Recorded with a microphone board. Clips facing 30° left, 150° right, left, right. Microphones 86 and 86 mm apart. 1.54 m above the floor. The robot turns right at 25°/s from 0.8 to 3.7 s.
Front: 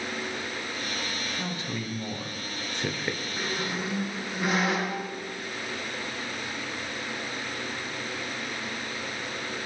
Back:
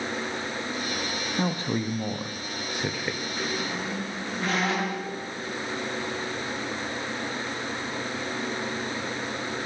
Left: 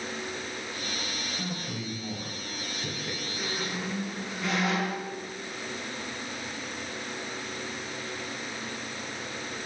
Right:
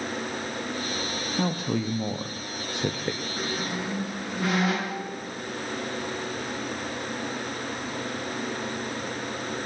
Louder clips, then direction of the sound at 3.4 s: Back 1 dB, right 3 dB; 55° right.